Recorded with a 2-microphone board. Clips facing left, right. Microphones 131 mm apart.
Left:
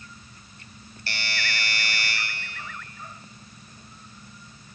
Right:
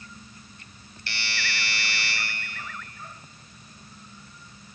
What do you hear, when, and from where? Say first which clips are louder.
1.1 s a doorbell: left 2 dB; 45° left (ahead or behind), 2.5 m